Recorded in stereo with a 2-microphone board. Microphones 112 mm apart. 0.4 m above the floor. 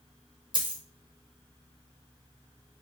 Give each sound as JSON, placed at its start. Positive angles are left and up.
{"t": 0.5, "sound": "a dropped coin", "side_deg": -50, "distance_m": 0.7}